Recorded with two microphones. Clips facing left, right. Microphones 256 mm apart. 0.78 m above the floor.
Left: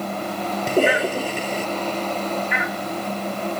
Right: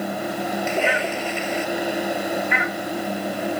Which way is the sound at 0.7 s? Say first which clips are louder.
Left 9 dB; 40° left (ahead or behind).